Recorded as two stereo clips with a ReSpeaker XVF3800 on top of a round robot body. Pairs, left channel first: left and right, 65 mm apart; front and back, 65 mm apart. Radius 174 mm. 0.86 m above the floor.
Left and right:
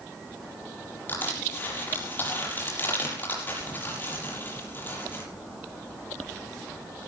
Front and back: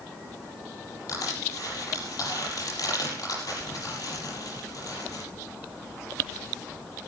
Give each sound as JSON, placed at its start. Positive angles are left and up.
{"t": 1.1, "sound": "crushing", "azimuth_deg": 30, "distance_m": 7.0}